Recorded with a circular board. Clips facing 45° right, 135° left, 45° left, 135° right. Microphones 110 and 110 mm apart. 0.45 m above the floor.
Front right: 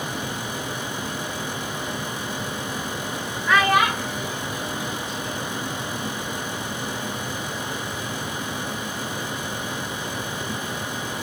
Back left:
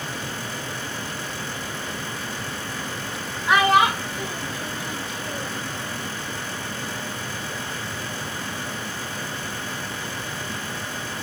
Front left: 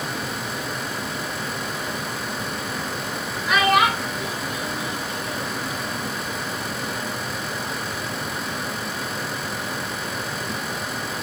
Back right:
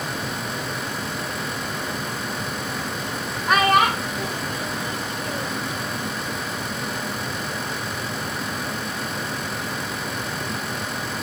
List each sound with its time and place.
3.5 s a child speaking: 160° right, 1.4 m; by 5.6 s 170° left, 2 m